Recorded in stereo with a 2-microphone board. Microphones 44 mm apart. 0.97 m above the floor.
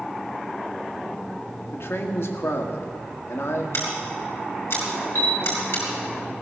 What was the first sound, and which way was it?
A man speaking, 70° left (ahead or behind).